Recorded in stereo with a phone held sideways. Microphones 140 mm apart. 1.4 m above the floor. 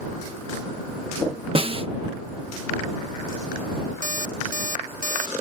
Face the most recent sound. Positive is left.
turn(degrees=-70)  # may be behind; listen again after turning